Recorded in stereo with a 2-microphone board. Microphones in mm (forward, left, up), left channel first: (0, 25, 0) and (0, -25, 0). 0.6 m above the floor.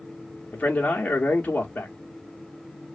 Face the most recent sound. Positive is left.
turn(degrees=30)  # may be behind; listen again after turning